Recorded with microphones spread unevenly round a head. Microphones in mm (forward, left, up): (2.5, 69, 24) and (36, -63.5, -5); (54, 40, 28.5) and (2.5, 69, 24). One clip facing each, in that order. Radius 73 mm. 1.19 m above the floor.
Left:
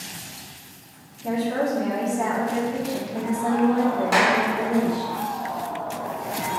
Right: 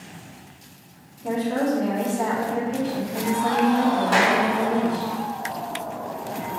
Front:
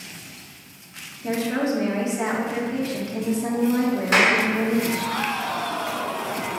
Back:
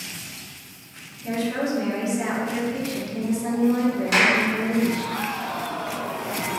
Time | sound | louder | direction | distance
1.2 | a woman speaking | right 1 dB, front 2 dB | 20° left | 2.5 m
4.1 | a clap | left 1 dB, front 2 dB | 20° left | 3 m